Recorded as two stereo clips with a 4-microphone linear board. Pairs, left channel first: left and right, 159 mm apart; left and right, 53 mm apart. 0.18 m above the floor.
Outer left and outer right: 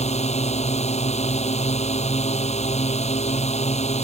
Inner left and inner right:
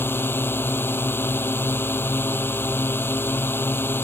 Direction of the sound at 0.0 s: 45° left (ahead or behind).